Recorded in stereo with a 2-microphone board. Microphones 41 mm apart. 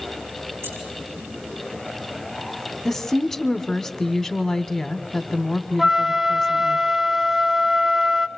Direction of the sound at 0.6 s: 80° right.